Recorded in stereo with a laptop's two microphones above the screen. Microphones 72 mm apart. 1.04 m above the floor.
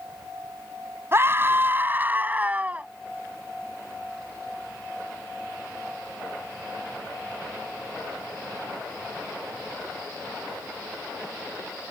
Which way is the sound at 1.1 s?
35° right (ahead or behind).